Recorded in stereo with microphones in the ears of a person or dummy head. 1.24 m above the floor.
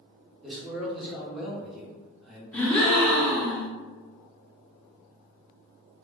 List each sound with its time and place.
0.4 s a man speaking: centre (ahead or behind), 0.8 m
2.5 s a gasp: 10° left (ahead or behind), 0.6 m